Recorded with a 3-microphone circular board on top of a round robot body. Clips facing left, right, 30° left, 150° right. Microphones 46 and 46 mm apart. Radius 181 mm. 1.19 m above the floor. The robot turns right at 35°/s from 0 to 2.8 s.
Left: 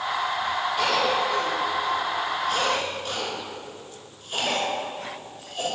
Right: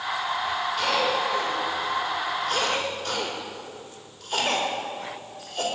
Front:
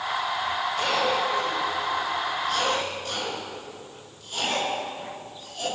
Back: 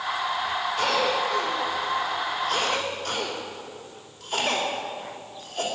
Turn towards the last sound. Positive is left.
turn(degrees=-120)